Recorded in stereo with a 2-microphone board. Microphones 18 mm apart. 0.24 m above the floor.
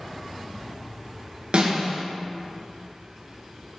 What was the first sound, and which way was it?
A snare drum, 60° right (ahead or behind).